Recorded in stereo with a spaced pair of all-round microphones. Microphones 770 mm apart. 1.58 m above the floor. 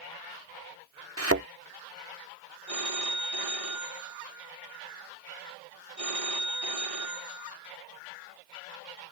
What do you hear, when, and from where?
1.2 s a thud: 15° right (ahead or behind)
2.7 s a phone ringing: 45° right (ahead or behind)